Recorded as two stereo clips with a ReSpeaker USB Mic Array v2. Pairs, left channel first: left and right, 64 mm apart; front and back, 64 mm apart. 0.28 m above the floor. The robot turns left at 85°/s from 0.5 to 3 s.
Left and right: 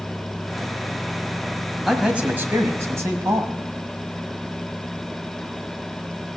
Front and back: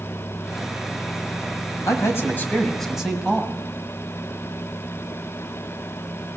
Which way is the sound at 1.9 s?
5° right.